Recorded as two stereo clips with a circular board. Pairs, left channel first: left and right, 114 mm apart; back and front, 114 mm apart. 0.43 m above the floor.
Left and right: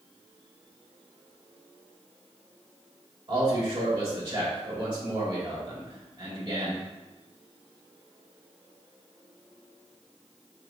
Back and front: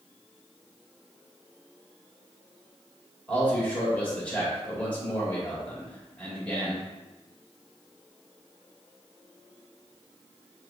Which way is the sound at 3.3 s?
105° right.